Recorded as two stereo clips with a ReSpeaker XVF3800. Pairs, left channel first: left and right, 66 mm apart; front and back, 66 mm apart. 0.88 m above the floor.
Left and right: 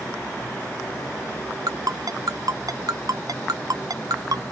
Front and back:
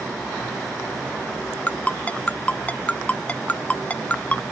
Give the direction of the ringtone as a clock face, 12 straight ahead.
2 o'clock.